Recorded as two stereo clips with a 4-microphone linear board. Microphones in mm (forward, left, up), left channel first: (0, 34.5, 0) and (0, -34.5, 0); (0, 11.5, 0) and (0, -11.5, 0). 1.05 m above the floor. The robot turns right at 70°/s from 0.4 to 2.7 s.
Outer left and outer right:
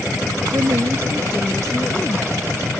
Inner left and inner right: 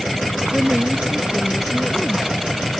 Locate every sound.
0.5 s a woman speaking: 75° right; by 2.3 s 50° left